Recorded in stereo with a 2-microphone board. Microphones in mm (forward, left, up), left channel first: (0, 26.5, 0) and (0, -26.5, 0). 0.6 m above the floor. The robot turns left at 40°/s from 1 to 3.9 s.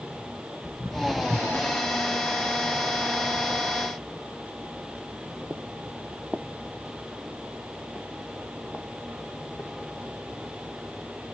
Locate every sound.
0.6 s footsteps: 5° right (ahead or behind), 4 m; by 9.7 s 40° left (ahead or behind), 2 m